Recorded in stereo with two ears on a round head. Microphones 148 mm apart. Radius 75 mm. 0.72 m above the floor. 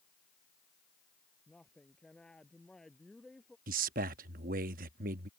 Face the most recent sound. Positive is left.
turn(degrees=-55)  # may be behind; listen again after turning